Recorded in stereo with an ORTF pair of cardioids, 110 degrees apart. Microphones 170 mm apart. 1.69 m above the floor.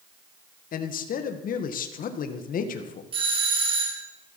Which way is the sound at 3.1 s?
30° right.